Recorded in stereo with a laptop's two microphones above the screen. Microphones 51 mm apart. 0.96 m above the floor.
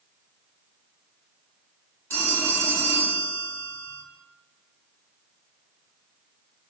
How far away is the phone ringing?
About 1.7 m.